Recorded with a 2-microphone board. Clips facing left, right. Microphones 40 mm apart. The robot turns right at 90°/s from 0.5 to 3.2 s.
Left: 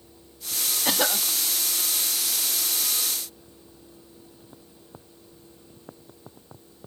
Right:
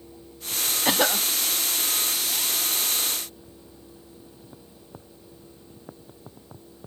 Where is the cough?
15° right (ahead or behind); by 1.3 s centre (ahead or behind).